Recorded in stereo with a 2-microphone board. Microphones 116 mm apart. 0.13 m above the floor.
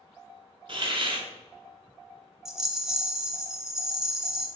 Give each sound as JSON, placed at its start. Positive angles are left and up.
{"t": 0.7, "sound": "a hiss", "side_deg": -45, "distance_m": 0.7}
{"t": 2.5, "sound": "a rattle", "side_deg": -5, "distance_m": 0.6}